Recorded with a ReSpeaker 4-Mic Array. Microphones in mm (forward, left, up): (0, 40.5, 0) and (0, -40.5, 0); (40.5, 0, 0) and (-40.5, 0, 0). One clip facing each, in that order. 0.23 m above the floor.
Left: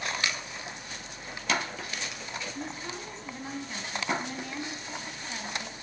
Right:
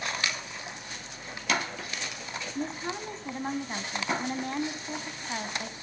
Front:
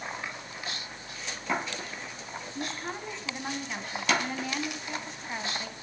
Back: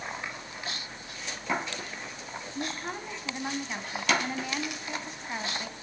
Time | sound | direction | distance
2.5 | a woman speaking | 95° right | 1.6 m